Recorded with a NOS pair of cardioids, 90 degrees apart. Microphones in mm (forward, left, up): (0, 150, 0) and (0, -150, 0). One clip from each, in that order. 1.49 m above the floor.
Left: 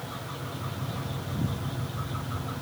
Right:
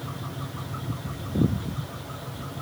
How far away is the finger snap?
I don't hear a finger snap.